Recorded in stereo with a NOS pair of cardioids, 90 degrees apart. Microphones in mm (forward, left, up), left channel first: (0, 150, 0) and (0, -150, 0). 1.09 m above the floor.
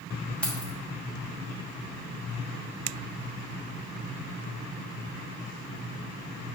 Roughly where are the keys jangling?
Ahead.